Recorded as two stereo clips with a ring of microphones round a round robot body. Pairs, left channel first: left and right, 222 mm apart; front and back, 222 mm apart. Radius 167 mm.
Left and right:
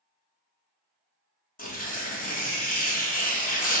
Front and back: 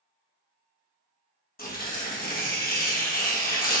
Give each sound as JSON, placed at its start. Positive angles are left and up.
{"t": 1.6, "sound": "tearing paper", "azimuth_deg": 45, "distance_m": 1.2}